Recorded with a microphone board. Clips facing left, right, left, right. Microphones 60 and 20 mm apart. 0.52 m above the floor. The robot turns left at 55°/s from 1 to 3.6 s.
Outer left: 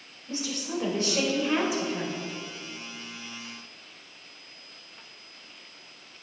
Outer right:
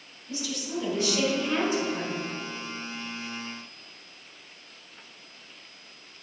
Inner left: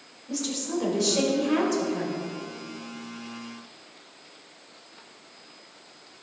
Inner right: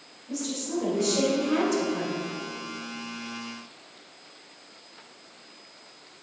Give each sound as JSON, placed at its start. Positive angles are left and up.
{"t": 0.3, "sound": "a woman speaking", "azimuth_deg": 50, "distance_m": 2.5}